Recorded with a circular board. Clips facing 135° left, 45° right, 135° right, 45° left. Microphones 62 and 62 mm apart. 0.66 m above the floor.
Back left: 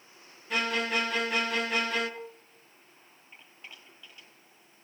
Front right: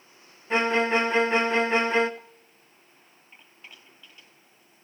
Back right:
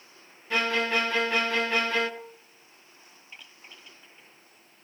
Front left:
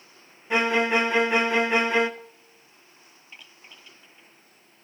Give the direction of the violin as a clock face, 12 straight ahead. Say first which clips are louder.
Front right 7 dB, front left 4 dB; 12 o'clock.